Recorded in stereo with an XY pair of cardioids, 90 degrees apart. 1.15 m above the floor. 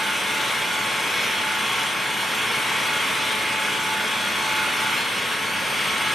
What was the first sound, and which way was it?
An engine running, 5° left.